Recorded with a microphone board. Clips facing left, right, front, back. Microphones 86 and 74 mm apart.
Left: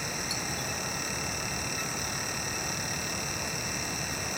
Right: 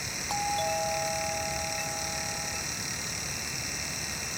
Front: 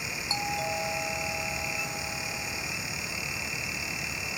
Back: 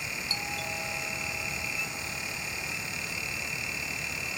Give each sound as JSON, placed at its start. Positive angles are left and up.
{"t": 0.3, "sound": "a doorbell", "azimuth_deg": -65}